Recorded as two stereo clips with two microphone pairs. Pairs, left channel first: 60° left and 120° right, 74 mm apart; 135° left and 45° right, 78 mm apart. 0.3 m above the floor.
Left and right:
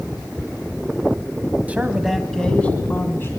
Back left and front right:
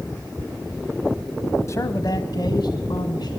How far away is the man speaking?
About 1.5 m.